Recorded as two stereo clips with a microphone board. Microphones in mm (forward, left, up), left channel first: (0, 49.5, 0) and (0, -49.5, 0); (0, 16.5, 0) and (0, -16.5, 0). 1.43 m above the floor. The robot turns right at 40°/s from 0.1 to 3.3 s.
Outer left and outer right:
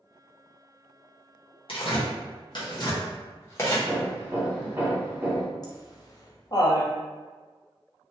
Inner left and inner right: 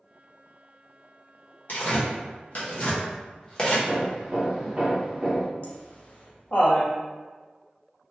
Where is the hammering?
20° right (ahead or behind), 0.8 m.